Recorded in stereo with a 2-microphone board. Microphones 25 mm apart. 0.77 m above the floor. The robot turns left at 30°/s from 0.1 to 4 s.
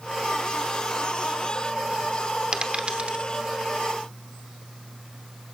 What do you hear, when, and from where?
2.5 s a dropped coin: 35° right (ahead or behind), 1.0 m; by 3.2 s 55° right (ahead or behind), 1.0 m